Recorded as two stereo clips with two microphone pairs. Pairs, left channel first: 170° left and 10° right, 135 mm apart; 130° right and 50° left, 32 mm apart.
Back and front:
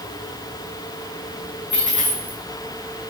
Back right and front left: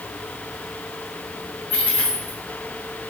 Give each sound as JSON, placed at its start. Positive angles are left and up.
{"t": 1.7, "sound": "a dropped coin", "azimuth_deg": -90, "distance_m": 3.5}